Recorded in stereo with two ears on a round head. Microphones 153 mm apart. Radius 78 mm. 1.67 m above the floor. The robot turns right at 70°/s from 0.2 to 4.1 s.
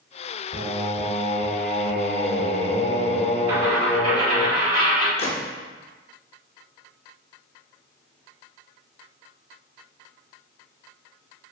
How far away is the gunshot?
About 0.6 m.